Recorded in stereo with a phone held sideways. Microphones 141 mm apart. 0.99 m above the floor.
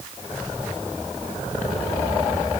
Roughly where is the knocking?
I don't hear knocking.